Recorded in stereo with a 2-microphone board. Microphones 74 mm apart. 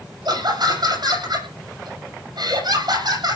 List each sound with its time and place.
0.2 s laughter: 65° right (ahead or behind), 7.5 m